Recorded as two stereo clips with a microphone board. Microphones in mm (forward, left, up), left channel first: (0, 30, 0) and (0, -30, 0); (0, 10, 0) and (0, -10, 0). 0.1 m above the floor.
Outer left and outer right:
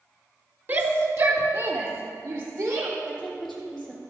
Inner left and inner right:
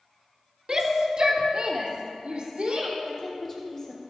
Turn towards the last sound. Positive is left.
turn(degrees=5)  # may be behind; listen again after turning